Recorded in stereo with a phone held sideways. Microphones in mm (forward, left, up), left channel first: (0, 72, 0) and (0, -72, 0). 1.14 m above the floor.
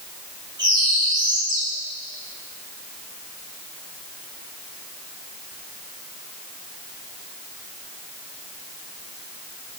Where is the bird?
30° right (ahead or behind), 2.5 m.